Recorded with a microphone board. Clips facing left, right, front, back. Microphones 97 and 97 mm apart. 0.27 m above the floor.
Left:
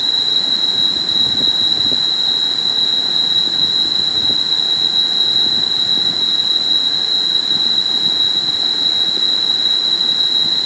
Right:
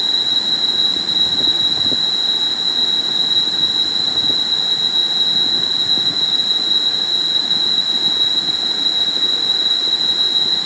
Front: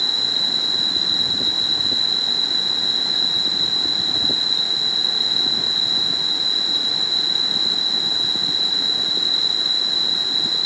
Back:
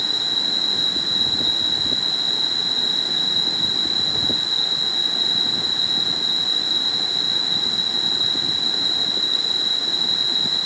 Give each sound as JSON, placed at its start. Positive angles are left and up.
{"t": 0.0, "sound": "an insect", "azimuth_deg": -145, "distance_m": 5.5}